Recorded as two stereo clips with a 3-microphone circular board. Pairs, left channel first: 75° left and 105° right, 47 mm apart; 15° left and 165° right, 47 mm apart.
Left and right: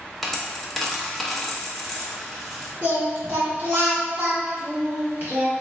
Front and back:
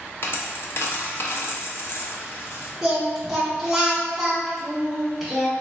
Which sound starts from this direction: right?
Singing, at 2.8 s.